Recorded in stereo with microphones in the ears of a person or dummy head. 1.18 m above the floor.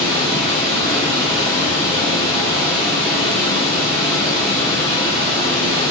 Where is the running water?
25° right (ahead or behind), 0.8 m.